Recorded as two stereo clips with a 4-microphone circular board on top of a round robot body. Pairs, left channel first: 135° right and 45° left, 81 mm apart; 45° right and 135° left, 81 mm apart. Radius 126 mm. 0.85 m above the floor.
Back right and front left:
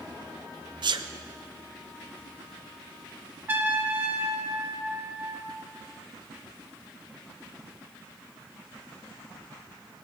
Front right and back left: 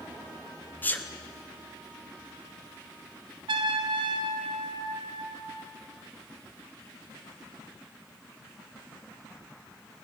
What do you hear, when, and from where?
0.8 s a sneeze: 20° left, 1.1 m
3.5 s a trumpet: 115° left, 0.7 m